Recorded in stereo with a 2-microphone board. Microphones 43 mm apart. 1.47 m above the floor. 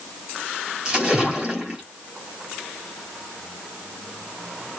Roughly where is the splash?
Centre.